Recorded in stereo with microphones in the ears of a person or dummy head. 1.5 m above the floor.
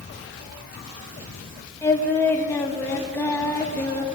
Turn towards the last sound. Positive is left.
turn(degrees=10)  # may be behind; listen again after turning